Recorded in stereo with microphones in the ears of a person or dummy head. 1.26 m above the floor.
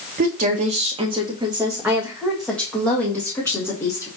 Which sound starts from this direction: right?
A woman speaking, at 0.2 s.